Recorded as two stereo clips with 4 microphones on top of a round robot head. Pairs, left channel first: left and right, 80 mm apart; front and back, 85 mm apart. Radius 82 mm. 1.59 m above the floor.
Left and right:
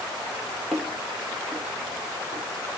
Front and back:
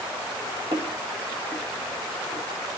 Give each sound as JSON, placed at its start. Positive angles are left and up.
{"t": 0.7, "sound": "footsteps", "azimuth_deg": 180, "distance_m": 2.0}